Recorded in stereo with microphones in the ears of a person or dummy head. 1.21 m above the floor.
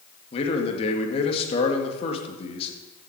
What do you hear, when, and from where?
0.3 s a man speaking: 40° left (ahead or behind), 1.9 m